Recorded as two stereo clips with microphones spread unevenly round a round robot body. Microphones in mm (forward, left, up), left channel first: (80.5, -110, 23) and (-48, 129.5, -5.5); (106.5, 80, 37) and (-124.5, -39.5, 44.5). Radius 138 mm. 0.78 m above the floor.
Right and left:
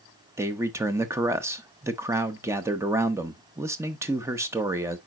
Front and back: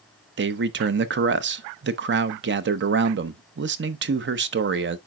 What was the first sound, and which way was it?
A man speaking, 170° right.